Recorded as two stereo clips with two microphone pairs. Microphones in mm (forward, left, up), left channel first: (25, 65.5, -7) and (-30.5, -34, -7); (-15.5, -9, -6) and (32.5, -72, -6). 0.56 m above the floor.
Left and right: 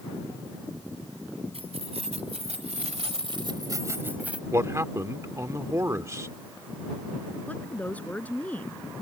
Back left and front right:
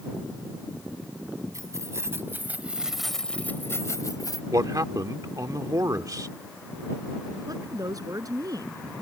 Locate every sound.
1.5 s keys jangling: 95° right; by 4.4 s 160° left
4.5 s a man speaking: 65° right
7.5 s a woman speaking: 15° right